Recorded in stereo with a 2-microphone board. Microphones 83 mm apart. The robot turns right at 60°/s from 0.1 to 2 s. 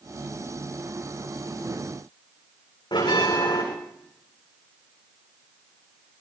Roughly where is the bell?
Left.